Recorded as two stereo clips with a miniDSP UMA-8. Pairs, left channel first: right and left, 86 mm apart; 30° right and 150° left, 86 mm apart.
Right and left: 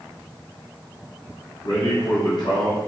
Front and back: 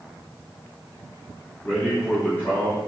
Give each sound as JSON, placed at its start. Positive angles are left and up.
{"t": 1.6, "sound": "a man speaking", "azimuth_deg": -95, "distance_m": 3.0}